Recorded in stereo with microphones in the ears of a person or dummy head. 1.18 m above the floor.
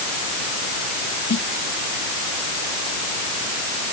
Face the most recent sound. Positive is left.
turn(degrees=55)  # may be behind; listen again after turning